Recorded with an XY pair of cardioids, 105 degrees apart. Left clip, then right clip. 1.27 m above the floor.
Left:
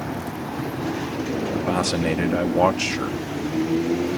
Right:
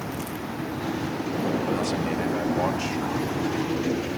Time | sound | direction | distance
1.7 | a man speaking | 60° left | ?